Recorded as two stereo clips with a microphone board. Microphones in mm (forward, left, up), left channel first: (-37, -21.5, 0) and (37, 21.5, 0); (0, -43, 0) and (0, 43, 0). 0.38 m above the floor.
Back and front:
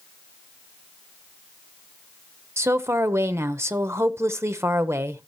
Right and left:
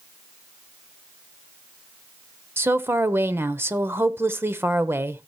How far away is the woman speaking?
About 1.0 m.